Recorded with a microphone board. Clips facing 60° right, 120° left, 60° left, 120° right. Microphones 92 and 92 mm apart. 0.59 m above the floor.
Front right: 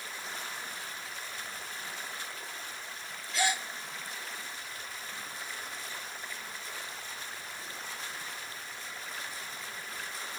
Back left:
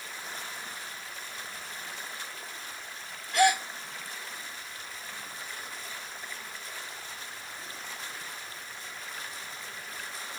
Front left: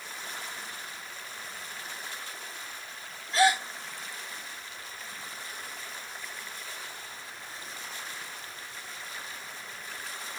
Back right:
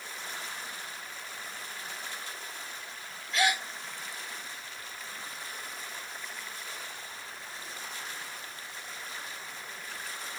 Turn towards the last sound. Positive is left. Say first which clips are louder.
# back left 8 dB, front left 5 dB
turn(degrees=110)